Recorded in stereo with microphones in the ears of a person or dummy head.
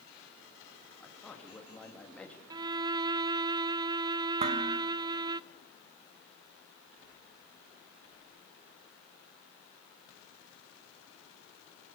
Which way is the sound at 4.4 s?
35° right (ahead or behind).